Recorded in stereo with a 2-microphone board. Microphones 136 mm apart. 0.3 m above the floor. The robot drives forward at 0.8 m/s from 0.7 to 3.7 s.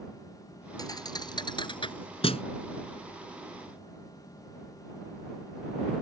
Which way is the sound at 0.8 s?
30° left (ahead or behind).